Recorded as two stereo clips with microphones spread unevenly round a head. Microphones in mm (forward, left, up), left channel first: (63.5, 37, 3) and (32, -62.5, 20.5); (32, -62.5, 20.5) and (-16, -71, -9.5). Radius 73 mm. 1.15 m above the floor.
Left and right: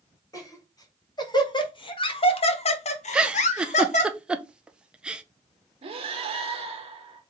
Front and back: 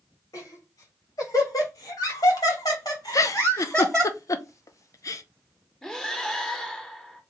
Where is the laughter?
15° left, 2 m; by 4.1 s 105° left, 1.1 m.